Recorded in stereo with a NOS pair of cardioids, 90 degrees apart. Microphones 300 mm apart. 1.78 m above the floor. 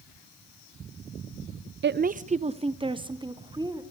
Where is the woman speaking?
40° right, 0.5 m; by 3.8 s 15° right, 2.5 m.